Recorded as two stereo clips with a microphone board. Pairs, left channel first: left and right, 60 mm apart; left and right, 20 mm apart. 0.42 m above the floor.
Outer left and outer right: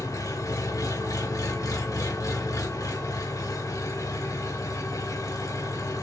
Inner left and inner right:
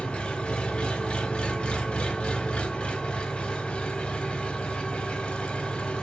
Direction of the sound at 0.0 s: 65° left (ahead or behind).